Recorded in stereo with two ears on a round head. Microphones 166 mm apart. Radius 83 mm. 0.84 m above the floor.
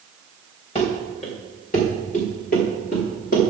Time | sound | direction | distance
0.8 | running footsteps | 30° left (ahead or behind) | 3.5 m